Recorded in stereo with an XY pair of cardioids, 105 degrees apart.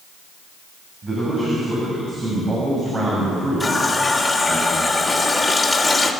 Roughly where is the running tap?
Ahead.